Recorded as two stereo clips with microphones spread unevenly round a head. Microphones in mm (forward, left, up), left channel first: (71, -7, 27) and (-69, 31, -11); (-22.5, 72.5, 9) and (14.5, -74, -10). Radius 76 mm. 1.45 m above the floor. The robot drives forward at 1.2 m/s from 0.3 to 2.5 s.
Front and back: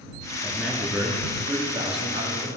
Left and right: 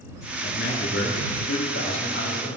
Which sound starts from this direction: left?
A man speaking, at 0.4 s.